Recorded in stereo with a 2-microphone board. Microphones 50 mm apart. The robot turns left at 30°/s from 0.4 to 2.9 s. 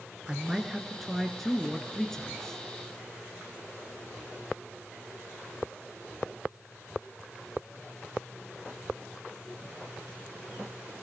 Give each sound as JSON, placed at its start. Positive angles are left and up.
{"t": 0.3, "sound": "a man speaking", "side_deg": -10, "distance_m": 1.2}